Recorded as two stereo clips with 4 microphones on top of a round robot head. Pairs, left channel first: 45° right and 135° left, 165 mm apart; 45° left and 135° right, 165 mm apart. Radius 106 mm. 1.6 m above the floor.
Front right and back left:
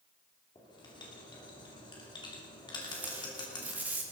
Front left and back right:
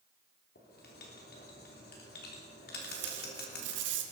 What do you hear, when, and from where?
0.6 s writing: 20° left, 3 m
2.8 s tape being pulled: 145° right, 1.5 m